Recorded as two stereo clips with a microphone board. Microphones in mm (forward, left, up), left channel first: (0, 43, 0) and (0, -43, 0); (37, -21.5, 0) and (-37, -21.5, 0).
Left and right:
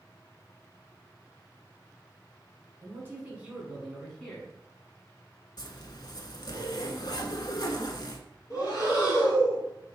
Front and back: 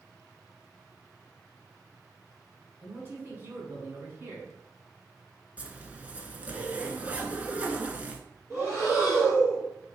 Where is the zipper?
115° left, 0.6 m.